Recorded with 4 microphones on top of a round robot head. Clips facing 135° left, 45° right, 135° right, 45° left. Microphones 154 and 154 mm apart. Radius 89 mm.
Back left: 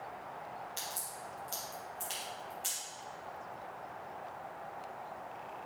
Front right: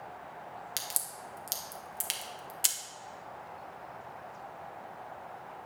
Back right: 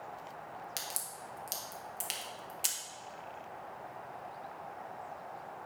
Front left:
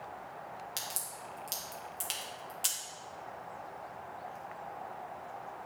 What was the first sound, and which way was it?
A crack, 55° right.